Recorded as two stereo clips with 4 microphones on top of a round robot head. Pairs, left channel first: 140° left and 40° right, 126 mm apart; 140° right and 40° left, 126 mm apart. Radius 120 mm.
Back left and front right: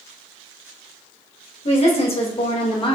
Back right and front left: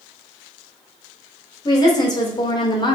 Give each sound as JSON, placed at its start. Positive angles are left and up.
{"t": 1.6, "sound": "a woman speaking", "azimuth_deg": 165, "distance_m": 2.5}